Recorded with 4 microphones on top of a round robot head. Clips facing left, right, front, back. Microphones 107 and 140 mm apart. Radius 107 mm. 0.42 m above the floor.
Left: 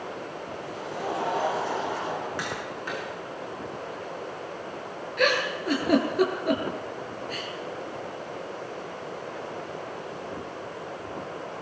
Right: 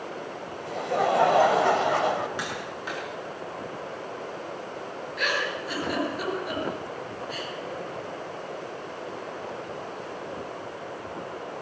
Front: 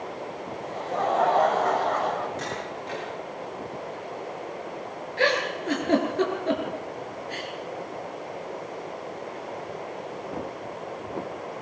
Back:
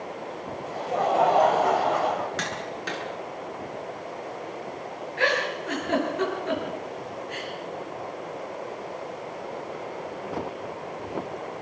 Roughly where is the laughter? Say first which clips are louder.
Right 9 dB, back 2 dB; right.